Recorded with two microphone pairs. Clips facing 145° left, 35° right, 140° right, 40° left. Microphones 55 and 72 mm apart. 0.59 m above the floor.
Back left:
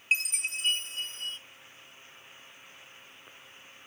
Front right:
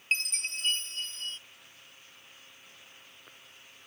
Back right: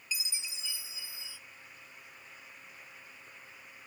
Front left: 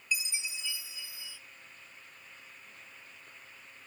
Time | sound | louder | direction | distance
0.1 | a chime | back left 2 dB, front left 5 dB | 65° left | 0.9 m